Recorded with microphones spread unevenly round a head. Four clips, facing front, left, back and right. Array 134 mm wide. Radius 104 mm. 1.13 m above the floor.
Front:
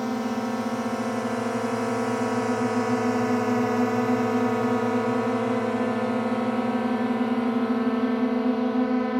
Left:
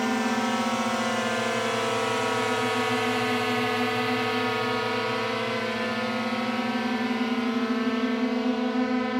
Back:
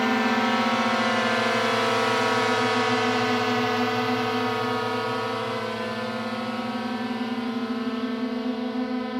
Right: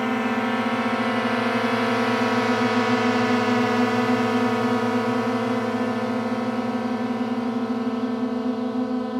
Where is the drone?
175° left; by 9.2 s 15° right.